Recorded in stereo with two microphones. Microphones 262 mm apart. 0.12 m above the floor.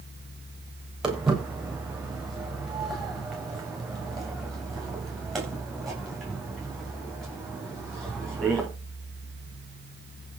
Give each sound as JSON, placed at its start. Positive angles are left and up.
{"t": 1.0, "sound": "footsteps", "side_deg": 0, "distance_m": 7.0}